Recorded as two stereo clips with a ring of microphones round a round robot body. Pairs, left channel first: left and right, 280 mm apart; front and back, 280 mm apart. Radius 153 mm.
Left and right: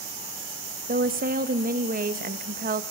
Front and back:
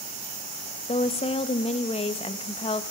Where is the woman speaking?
55° right, 1.1 m.